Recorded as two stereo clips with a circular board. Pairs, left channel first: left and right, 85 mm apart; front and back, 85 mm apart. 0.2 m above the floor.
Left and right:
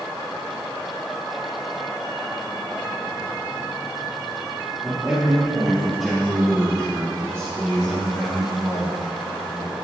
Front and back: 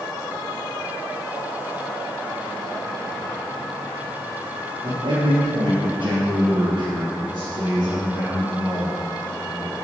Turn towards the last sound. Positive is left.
turn(degrees=110)